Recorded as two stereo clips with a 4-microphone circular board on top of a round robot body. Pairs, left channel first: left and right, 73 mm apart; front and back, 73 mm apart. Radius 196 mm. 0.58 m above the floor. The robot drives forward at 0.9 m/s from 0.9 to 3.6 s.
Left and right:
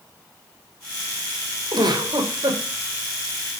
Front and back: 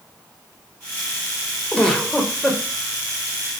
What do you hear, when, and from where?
1.7 s a giggle: 75° right, 3 m; by 2.6 s 90° right, 3 m